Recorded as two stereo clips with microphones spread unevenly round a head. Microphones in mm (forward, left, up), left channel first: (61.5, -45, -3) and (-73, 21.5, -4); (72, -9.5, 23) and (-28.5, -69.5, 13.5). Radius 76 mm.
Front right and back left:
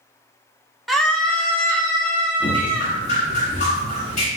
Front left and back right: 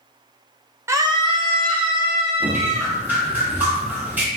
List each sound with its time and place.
0.9 s a scream: 115° right, 0.5 m; by 2.9 s 105° right, 3 m
2.4 s dripping: 75° right, 1.7 m